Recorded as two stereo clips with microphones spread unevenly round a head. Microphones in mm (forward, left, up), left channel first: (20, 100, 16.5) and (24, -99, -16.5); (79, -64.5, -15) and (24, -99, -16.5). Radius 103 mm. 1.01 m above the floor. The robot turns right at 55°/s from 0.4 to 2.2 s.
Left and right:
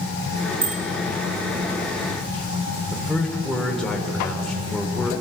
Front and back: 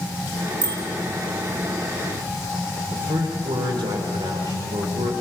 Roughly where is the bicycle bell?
Behind right.